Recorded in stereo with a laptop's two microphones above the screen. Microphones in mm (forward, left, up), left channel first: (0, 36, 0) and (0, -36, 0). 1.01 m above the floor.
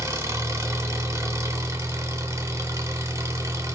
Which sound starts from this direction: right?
An engine running, at 0.0 s.